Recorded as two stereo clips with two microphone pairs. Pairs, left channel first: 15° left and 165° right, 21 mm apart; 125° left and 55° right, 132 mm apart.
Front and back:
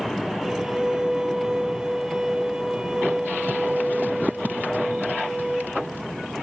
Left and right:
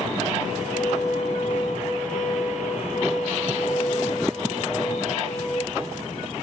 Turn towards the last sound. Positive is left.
turn(degrees=145)